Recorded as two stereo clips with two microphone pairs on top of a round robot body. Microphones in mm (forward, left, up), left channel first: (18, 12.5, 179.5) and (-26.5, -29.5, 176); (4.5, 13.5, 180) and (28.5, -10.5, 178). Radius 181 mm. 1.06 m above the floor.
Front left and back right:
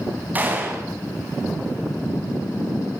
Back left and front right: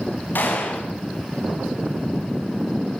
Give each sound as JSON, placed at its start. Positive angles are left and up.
{"t": 0.3, "sound": "a gunshot", "azimuth_deg": 160, "distance_m": 6.0}